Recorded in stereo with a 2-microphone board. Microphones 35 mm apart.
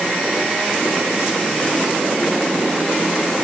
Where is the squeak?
I don't hear a squeak.